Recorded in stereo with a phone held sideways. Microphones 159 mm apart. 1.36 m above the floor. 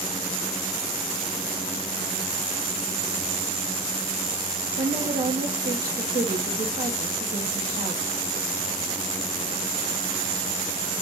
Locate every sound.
4.8 s a woman speaking: 60° right (ahead or behind), 0.7 m